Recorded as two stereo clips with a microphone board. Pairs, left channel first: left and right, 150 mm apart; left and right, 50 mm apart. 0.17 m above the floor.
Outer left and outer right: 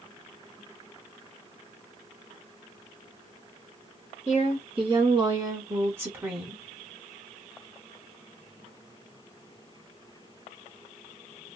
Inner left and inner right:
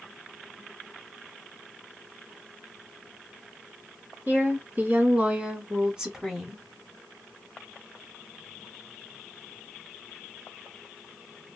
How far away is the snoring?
No snoring in this recording.